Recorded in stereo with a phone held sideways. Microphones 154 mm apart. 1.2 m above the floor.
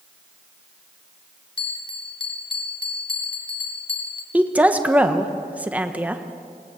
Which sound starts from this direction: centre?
A woman speaking, at 4.3 s.